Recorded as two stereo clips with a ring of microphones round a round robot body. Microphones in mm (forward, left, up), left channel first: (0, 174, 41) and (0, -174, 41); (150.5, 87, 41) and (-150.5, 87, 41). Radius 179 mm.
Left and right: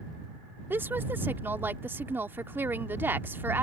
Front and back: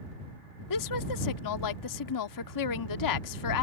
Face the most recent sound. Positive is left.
turn(degrees=-5)